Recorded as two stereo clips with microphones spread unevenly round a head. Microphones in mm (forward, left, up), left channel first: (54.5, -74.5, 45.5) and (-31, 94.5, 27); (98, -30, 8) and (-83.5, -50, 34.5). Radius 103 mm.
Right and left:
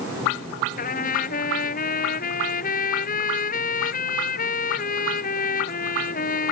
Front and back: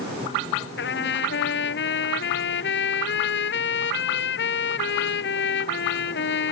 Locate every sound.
0.8 s a trumpet: 20° right